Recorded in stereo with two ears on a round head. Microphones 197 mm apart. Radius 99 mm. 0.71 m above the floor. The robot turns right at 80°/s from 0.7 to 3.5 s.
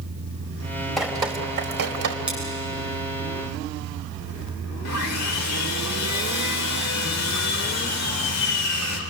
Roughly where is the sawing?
Left.